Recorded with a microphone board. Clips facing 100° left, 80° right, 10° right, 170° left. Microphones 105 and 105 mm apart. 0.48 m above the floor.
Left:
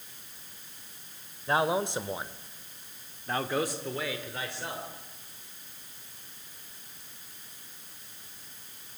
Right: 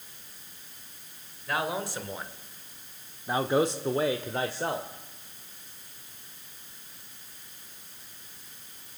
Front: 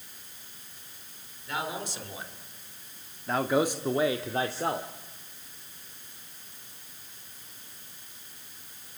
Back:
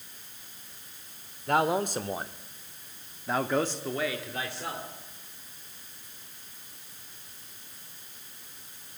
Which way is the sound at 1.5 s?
155° left.